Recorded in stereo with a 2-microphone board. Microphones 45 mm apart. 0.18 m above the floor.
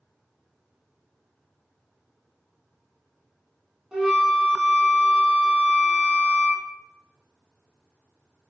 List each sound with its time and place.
3.9 s a flute: 15° right (ahead or behind), 0.8 m